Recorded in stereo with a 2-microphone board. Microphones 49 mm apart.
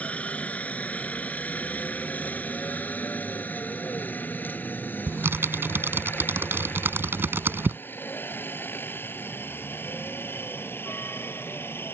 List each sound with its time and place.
0.0 s a helicopter: 30° left (ahead or behind); by 11.9 s 50° left (ahead or behind)
5.1 s typing on a keyboard: 45° right (ahead or behind)